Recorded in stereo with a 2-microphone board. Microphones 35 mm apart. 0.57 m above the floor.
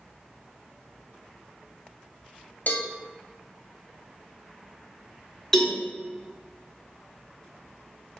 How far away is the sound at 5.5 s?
About 1.4 m.